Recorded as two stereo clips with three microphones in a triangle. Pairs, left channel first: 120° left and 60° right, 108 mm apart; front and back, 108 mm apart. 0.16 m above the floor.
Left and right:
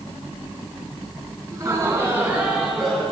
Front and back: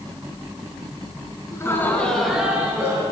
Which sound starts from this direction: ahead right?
Laughter, at 1.5 s.